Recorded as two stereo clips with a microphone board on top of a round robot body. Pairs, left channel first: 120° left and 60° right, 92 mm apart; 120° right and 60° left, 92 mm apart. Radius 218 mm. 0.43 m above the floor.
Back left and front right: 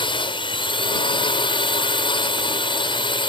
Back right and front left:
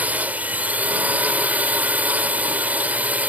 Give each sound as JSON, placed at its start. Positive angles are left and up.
{"t": 0.0, "sound": "a drone", "azimuth_deg": 130}